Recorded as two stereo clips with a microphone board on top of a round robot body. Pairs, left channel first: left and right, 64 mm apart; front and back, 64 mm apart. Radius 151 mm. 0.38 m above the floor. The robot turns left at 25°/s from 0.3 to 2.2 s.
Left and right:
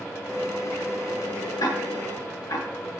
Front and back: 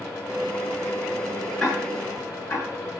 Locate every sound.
1.6 s ticking: 85° left, 8.5 m; by 2.6 s 70° left, 8.5 m